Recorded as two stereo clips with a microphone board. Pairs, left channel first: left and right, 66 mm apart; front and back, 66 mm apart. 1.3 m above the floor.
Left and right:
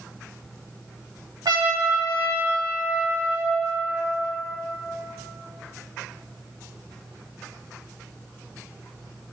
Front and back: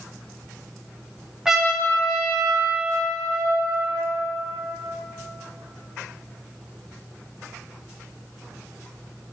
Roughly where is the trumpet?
Right.